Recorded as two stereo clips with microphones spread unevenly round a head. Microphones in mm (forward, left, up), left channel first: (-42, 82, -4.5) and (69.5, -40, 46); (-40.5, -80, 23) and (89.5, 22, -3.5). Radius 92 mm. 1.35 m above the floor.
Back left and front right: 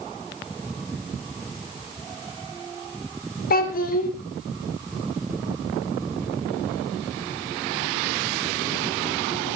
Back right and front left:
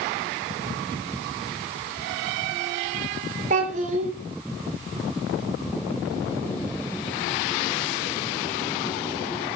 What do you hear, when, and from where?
3.5 s a child speaking: 95° left, 2.5 m